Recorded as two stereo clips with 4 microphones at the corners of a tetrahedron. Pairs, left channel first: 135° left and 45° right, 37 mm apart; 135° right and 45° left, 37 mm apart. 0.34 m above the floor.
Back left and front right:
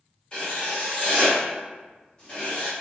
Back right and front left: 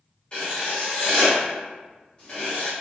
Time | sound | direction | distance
0.3 | writing | straight behind | 1.8 m